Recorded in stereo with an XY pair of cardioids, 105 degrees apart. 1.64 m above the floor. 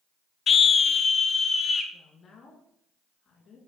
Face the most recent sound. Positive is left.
turn(degrees=50)